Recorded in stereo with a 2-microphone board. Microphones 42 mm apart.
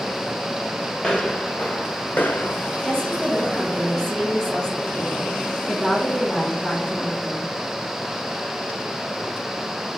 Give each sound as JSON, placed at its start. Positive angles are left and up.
{"t": 1.0, "sound": "footsteps", "side_deg": 15, "distance_m": 1.6}
{"t": 2.8, "sound": "a woman speaking", "side_deg": 15, "distance_m": 3.5}